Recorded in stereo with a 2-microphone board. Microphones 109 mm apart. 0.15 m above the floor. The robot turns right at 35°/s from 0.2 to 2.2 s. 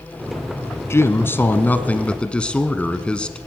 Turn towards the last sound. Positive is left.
turn(degrees=10)  # may be behind; listen again after turning